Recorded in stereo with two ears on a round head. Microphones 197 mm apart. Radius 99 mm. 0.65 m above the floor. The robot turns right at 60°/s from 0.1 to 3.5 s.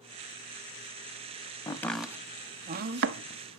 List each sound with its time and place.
1.7 s chopping: 15° left (ahead or behind), 0.8 m; by 3.6 s 65° right (ahead or behind), 0.8 m